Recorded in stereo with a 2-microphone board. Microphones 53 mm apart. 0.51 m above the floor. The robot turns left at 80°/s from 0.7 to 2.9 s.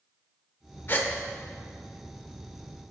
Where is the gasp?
40° left (ahead or behind), 0.6 m; by 1.1 s 25° left (ahead or behind), 0.6 m.